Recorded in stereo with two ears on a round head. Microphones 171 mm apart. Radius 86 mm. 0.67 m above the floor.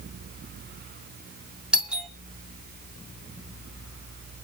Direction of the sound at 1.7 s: 5° right (ahead or behind).